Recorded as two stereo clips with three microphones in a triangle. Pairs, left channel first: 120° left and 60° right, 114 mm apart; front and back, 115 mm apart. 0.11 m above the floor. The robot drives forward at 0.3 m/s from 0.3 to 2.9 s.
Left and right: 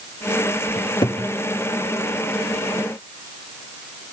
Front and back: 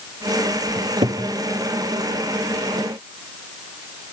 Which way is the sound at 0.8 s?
160° left.